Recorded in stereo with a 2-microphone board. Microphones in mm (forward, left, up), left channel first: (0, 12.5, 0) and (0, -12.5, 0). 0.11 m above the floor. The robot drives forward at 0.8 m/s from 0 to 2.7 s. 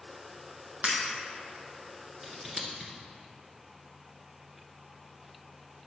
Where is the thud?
No thud in this recording.